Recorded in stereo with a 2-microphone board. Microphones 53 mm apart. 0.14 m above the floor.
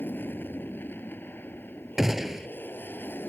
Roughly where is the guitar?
I don't hear a guitar.